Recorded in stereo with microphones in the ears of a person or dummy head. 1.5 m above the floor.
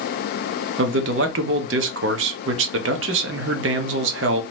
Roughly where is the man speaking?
Right.